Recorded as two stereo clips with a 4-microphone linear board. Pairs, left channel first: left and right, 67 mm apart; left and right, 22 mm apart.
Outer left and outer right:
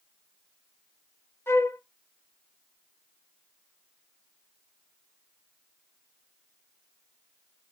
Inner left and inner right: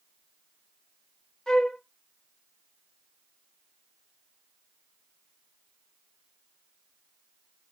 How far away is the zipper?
No zipper in this recording.